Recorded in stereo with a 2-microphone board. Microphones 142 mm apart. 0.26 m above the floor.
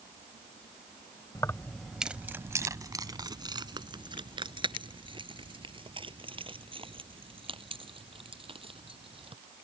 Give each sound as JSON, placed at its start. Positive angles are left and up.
{"t": 1.4, "sound": "keys jangling", "side_deg": 25}